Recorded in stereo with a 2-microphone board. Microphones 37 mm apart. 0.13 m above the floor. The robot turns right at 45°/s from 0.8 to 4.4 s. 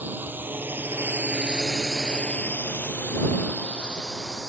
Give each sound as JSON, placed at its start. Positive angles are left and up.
{"t": 0.0, "sound": "a drone", "side_deg": -60}